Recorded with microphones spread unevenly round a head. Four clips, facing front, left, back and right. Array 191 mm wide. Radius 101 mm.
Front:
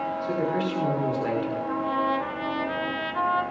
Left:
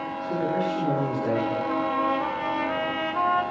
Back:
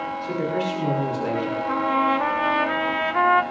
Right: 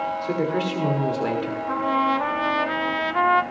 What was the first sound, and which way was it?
A man speaking, 90° right.